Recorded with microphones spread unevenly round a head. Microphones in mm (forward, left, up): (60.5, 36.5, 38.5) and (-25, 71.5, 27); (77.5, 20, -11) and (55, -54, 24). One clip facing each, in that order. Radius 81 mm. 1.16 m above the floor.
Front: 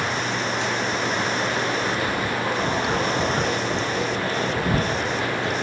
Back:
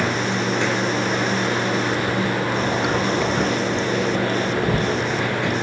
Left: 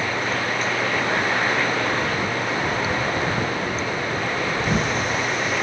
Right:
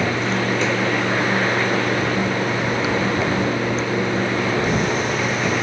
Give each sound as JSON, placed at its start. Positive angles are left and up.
{"t": 0.0, "sound": "running water", "azimuth_deg": -150}